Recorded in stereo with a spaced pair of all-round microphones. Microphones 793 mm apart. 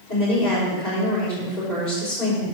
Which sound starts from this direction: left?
A woman speaking, at 0.1 s.